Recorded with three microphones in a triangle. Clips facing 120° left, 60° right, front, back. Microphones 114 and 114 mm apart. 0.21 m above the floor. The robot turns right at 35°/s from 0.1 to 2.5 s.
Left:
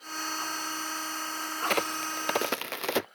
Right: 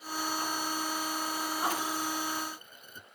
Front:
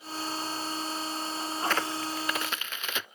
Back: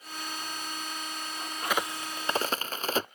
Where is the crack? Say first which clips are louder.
Left 5 dB, even; 95° left; by 3.1 s 125° left.